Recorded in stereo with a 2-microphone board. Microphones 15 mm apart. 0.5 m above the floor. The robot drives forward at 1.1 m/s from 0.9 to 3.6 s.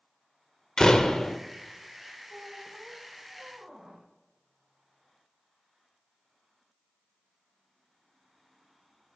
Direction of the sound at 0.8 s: 50° left (ahead or behind).